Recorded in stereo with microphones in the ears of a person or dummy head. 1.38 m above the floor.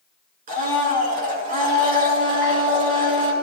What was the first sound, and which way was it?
A blender, 45° right (ahead or behind).